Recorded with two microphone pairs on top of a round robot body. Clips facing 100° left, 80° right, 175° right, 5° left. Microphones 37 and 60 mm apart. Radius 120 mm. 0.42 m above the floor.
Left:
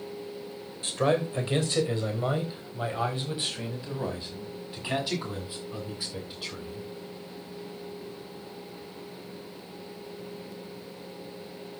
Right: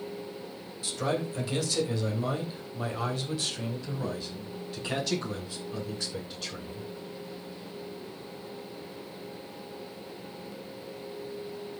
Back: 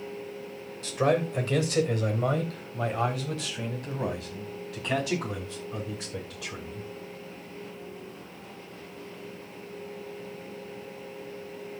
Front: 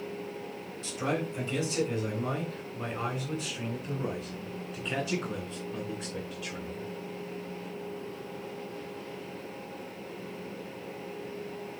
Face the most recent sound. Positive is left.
turn(degrees=180)